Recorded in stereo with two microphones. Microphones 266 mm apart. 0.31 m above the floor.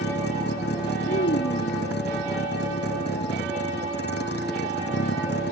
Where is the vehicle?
45° left (ahead or behind).